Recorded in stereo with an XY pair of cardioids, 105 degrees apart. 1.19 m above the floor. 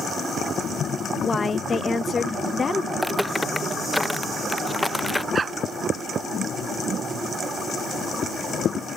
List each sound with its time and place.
1.2 s a woman speaking: 30° left
2.9 s footsteps: straight ahead
5.3 s a dog barking: 35° right